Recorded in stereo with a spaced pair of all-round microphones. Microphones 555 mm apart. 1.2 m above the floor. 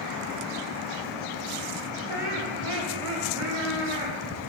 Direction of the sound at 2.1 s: 75° right (ahead or behind).